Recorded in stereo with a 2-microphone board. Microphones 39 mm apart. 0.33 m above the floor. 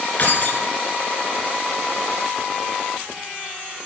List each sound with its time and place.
0.2 s keys jangling: 40° left (ahead or behind), 2.5 m